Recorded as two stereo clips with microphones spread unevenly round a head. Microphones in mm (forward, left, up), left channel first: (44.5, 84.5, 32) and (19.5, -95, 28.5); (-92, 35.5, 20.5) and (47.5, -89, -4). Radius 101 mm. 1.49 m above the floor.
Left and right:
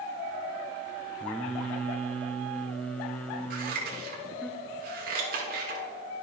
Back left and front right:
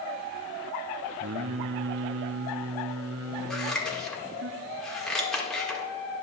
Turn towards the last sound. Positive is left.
turn(degrees=-140)